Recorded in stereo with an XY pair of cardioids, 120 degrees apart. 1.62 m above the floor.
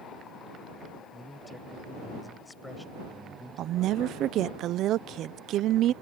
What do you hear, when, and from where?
1.1 s a man speaking: 5° left
3.6 s a woman speaking: 65° right